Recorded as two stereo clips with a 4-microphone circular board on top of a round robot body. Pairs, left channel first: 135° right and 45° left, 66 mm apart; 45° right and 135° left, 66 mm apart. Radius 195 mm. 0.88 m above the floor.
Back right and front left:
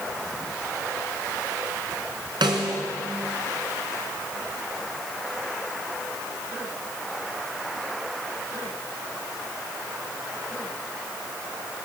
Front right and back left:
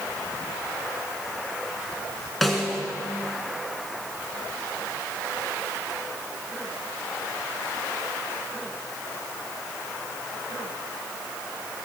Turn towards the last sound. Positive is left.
turn(degrees=45)